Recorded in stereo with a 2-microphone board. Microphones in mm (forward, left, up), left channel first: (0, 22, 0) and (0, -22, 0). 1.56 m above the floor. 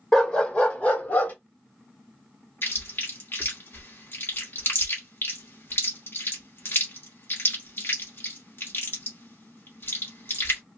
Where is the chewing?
55° left (ahead or behind), 2 m.